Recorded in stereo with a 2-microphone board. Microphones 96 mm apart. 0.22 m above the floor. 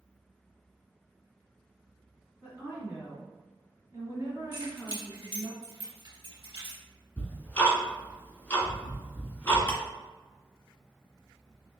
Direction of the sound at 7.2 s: 20° left (ahead or behind).